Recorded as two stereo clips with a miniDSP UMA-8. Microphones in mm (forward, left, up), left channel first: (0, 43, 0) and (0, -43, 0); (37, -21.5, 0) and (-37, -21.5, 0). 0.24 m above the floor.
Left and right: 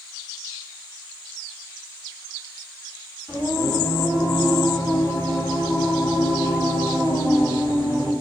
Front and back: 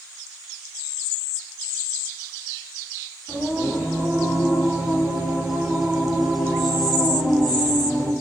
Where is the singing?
120° left, 1.8 m.